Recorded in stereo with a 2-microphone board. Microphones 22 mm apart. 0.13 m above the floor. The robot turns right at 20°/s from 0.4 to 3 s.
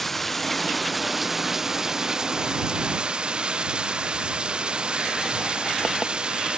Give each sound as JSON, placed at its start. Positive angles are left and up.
{"t": 0.0, "sound": "running water", "azimuth_deg": 170}